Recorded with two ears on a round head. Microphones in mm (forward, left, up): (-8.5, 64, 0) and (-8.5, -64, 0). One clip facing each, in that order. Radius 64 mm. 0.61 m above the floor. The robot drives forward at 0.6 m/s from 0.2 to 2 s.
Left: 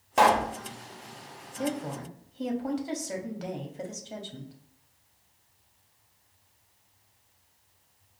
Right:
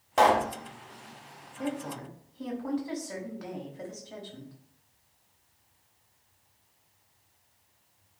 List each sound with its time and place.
0.2 s a pop: 10° left (ahead or behind), 0.6 m; by 0.5 s 5° left (ahead or behind), 0.7 m
1.6 s a woman speaking: 30° left (ahead or behind), 0.7 m